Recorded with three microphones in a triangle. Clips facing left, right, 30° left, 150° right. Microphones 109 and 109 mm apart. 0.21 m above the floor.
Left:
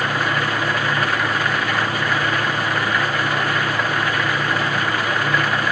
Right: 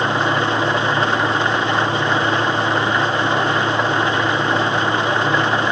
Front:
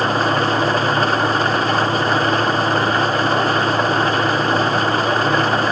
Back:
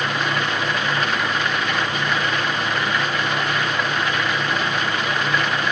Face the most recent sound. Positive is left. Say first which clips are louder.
# right 3 dB, front 6 dB
turn(degrees=-25)